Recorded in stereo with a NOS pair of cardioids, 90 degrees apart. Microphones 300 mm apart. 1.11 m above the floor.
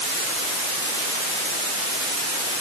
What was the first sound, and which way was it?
Only background noise.